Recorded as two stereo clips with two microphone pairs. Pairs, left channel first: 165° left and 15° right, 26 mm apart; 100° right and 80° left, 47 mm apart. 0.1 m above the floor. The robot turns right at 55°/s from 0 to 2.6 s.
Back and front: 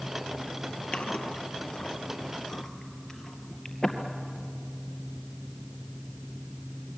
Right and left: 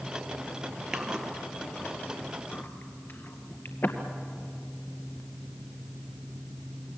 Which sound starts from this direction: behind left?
Chewing, at 0.9 s.